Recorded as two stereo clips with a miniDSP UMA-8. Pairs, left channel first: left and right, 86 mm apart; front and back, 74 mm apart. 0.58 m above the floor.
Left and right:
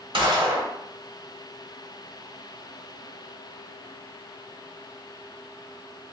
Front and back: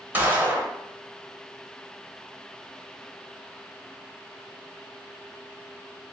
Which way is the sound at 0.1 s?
110° right.